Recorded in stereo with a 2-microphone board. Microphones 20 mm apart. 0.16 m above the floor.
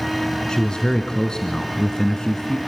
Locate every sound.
0.5 s a man speaking: 45° left (ahead or behind), 1.3 m